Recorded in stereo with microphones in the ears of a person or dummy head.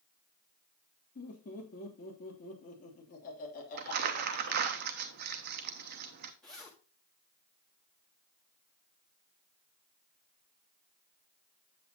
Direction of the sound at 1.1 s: 40° left (ahead or behind).